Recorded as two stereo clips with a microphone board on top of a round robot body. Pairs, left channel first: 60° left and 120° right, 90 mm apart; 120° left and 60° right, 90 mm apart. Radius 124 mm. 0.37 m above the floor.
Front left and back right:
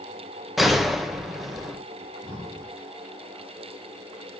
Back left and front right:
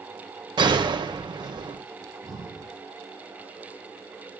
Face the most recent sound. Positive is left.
turn(degrees=-15)